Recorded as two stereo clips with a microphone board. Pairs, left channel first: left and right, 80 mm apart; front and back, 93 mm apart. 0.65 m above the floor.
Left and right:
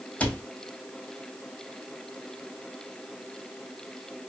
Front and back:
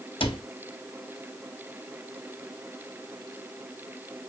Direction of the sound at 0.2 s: 15° left.